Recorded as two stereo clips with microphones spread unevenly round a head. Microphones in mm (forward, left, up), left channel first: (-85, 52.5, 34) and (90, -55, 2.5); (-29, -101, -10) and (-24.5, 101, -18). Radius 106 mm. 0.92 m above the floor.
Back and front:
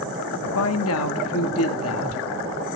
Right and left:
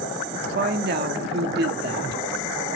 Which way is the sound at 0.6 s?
130° left.